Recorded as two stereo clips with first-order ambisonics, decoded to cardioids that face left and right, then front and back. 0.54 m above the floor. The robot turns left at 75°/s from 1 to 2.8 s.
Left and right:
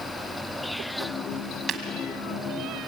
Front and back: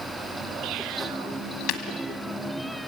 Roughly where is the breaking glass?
Ahead right.